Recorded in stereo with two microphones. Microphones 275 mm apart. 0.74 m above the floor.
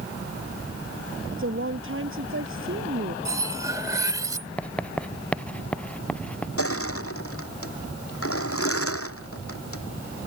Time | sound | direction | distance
1.3 | a woman speaking | 45° right (ahead or behind) | ?
3.2 | cutlery clinking | 10° right (ahead or behind) | ?
4.6 | writing | 5° left (ahead or behind) | ?
6.6 | crushing | 55° left (ahead or behind) | ?